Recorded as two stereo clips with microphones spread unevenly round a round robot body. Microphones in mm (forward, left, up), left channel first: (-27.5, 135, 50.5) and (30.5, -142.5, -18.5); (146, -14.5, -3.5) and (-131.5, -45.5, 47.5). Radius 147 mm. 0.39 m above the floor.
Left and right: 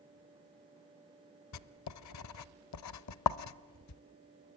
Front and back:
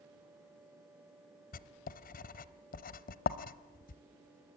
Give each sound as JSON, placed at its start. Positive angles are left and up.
{"t": 1.5, "sound": "writing", "azimuth_deg": 65, "distance_m": 0.7}